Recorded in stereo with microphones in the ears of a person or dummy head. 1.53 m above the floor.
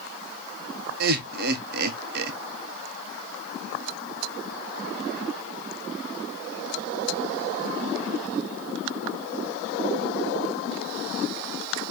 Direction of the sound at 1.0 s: 55° right (ahead or behind).